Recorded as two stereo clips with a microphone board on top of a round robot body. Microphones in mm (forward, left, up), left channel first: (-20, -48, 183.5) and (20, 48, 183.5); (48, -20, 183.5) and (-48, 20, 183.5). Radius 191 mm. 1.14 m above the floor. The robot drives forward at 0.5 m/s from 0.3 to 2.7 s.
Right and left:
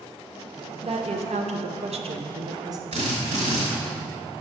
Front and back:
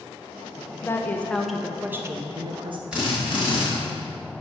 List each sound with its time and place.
0.8 s a woman speaking: 45° left, 0.9 m; by 2.8 s 120° left, 0.7 m
2.9 s a drill: 75° left, 0.9 m